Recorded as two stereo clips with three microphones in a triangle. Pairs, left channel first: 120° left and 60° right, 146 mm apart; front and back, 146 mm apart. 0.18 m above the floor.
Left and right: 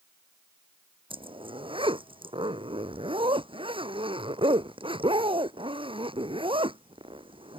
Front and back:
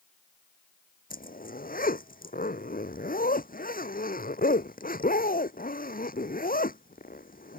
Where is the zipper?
5° right.